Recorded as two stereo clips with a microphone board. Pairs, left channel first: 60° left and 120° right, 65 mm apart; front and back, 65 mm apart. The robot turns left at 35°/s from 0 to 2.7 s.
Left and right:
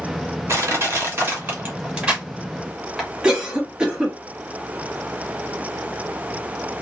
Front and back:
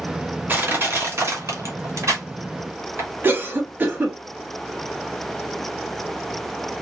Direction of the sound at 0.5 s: 135° right.